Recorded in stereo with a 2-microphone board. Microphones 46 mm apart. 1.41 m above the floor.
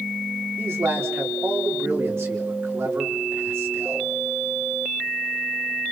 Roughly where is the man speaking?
Right.